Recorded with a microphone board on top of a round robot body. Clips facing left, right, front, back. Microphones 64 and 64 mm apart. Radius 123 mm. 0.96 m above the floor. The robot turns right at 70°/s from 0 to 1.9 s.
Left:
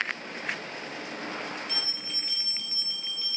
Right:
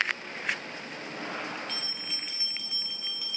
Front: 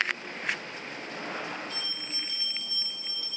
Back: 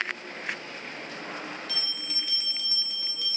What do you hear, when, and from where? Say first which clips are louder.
1.7 s a bell: left 1 dB, back 1 dB; 170° left, 0.8 m; by 3.4 s 175° right, 0.8 m